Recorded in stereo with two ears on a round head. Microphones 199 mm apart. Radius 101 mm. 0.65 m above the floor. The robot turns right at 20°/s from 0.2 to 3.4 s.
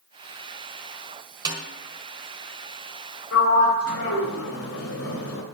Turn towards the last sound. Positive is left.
turn(degrees=75)  # may be behind; listen again after turning